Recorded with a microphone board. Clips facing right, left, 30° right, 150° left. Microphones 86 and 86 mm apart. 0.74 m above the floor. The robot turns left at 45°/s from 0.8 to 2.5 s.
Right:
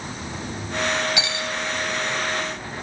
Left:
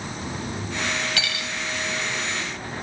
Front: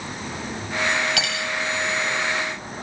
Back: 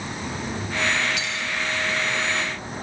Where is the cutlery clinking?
20° right, 2.5 m; by 1.5 s 35° right, 2.5 m.